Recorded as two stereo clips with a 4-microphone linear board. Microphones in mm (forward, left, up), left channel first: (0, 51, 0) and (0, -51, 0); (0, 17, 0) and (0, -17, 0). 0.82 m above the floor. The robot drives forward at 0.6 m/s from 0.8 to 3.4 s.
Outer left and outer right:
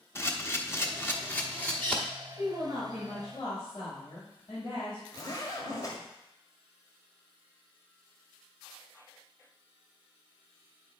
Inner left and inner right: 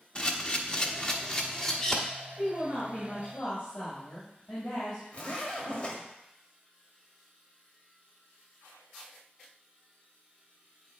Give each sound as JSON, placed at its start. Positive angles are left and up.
{"t": 0.1, "sound": "a camera shutter", "side_deg": 25, "distance_m": 0.8}
{"t": 2.4, "sound": "a woman speaking", "side_deg": 40, "distance_m": 4.0}
{"t": 5.1, "sound": "a zipper", "side_deg": 35, "distance_m": 1.6}